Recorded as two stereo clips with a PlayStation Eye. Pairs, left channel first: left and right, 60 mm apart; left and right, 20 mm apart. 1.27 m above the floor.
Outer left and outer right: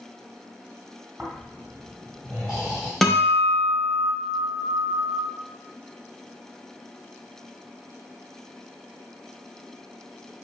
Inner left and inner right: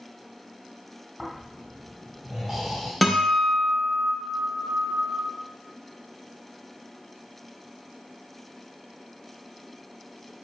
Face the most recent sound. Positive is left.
turn(degrees=5)  # may be behind; listen again after turning